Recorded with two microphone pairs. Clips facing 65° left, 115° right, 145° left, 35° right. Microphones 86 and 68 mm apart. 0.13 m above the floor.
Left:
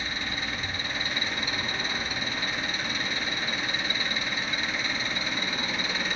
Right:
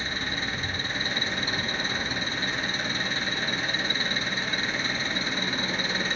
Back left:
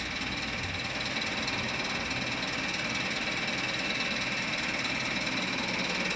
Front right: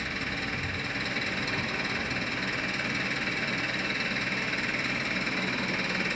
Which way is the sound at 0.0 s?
70° right.